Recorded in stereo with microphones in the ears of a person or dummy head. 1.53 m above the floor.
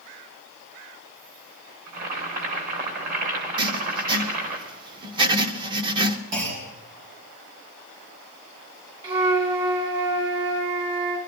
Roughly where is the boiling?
Right.